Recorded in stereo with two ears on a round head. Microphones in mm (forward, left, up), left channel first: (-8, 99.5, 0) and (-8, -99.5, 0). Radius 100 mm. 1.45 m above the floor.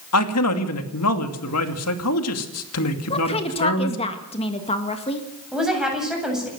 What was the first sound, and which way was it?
A man speaking, 80° left.